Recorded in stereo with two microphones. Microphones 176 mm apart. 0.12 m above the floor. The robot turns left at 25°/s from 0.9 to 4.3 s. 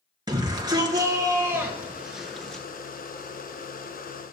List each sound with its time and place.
0.3 s a shout: 145° right, 2 m; by 2.6 s 175° left, 2 m